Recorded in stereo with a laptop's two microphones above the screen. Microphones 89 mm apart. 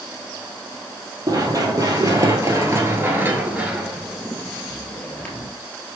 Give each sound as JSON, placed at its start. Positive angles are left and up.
{"t": 1.3, "sound": "running footsteps", "side_deg": -40, "distance_m": 1.8}